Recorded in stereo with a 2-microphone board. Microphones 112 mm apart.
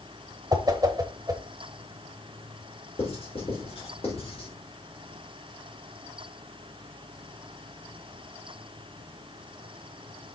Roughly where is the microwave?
I don't hear a microwave.